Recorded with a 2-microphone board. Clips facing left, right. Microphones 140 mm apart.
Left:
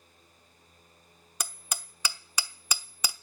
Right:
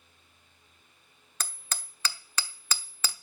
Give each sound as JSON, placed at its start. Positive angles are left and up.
{"t": 1.4, "sound": "hammering", "side_deg": 15, "distance_m": 0.8}